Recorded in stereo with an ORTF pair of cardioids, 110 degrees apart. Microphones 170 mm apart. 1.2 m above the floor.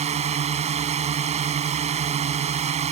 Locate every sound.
0.0 s a drone: 40° right